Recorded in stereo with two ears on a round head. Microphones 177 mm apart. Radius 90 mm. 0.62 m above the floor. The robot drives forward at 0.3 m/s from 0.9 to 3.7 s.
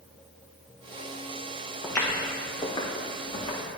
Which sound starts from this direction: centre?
Footsteps, at 1.8 s.